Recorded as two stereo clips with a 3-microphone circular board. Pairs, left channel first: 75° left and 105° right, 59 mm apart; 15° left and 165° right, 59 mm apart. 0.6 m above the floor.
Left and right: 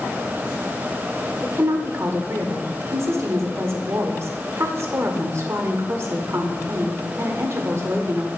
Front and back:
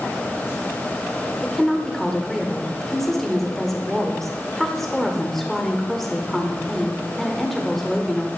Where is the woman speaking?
70° right, 1.3 m.